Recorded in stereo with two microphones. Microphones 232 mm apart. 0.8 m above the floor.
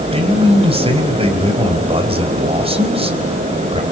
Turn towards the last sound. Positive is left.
turn(degrees=-25)  # may be behind; listen again after turning